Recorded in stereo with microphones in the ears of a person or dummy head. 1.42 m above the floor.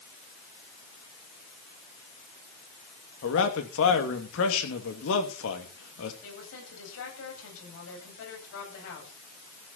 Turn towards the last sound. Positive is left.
turn(degrees=75)  # may be behind; listen again after turning